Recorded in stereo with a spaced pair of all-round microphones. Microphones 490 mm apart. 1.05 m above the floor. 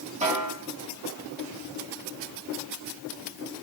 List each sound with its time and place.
0.2 s a snare drum: 15° right (ahead or behind), 3 m